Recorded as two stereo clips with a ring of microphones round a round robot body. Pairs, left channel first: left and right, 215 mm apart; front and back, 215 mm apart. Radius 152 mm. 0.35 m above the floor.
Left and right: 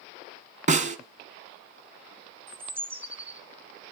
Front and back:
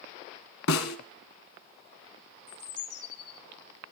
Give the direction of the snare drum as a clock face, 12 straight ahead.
1 o'clock.